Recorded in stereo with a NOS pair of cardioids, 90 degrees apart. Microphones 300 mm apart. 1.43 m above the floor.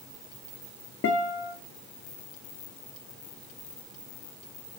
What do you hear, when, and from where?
1.0 s a guitar: 45° left, 0.7 m